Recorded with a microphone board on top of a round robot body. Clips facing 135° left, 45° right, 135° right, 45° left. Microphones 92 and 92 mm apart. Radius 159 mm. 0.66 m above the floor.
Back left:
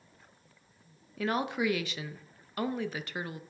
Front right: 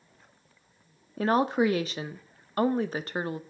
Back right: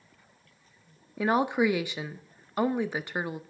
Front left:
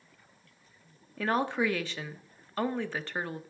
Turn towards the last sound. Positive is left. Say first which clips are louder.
# front right 7 dB, back right 4 dB
turn(degrees=-70)